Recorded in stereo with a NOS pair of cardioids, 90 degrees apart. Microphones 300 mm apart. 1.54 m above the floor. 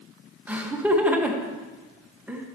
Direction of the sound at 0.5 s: 5° right.